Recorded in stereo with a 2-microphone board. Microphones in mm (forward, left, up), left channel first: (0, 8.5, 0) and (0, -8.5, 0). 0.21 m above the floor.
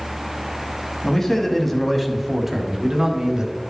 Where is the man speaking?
30° left (ahead or behind), 1.4 m; by 3.5 s 50° right (ahead or behind), 1.7 m.